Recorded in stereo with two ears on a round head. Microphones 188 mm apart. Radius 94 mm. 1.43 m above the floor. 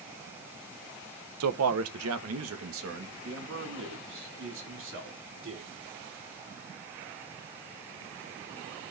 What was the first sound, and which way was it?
A man speaking, 80° right.